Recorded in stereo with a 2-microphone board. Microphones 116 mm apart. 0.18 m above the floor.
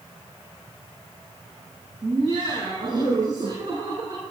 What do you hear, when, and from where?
2.0 s laughter: 35° right (ahead or behind), 6 m